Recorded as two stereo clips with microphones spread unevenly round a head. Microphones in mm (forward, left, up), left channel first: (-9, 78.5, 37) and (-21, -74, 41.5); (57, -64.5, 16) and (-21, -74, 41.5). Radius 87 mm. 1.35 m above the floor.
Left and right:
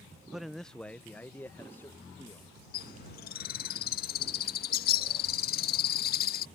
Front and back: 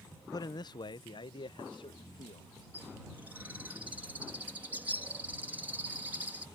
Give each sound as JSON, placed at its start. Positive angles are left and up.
{"t": 0.3, "sound": "a man speaking", "azimuth_deg": -5}
{"t": 2.7, "sound": "a bird", "azimuth_deg": 110}